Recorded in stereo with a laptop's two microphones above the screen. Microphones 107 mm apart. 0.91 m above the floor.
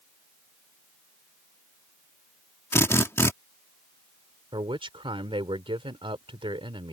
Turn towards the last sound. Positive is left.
turn(degrees=-55)  # may be behind; listen again after turning